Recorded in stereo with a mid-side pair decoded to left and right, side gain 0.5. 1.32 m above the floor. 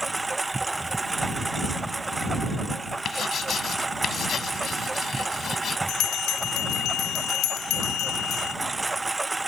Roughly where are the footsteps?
I don't hear footsteps.